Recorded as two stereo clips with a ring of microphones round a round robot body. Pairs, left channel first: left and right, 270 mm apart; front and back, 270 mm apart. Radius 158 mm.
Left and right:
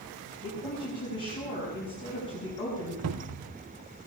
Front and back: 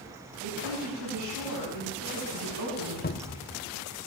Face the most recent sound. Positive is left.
turn(degrees=-60)